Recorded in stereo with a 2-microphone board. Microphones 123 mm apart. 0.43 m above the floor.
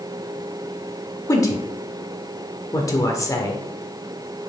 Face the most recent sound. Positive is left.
turn(degrees=25)  # may be behind; listen again after turning